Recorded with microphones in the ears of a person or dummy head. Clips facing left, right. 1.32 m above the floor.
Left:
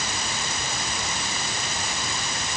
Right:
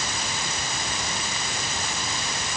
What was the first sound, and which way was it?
Only background noise.